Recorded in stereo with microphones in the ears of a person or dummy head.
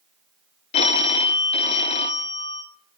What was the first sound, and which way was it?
A phone ringing, 40° left (ahead or behind).